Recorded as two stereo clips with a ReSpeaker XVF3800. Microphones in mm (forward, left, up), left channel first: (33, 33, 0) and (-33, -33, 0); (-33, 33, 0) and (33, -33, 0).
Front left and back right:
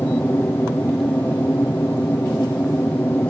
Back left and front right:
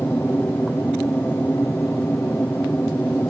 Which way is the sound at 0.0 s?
90° left.